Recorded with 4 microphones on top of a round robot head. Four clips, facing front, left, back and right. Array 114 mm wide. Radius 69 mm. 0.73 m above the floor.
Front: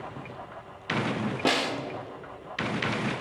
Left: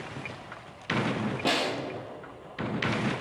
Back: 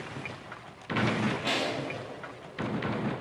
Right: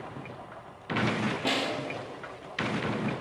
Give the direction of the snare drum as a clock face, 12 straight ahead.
12 o'clock.